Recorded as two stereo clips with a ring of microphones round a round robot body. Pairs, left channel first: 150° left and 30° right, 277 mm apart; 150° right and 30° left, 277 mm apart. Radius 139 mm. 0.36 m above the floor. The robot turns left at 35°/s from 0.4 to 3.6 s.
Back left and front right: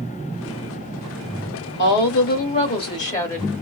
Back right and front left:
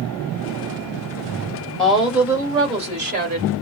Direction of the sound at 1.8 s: 125° left.